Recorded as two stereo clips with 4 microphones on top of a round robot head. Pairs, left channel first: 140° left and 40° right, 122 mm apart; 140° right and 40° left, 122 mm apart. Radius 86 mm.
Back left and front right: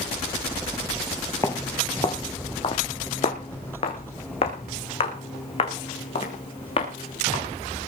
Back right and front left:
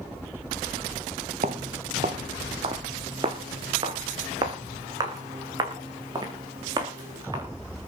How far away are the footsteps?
About 1.0 m.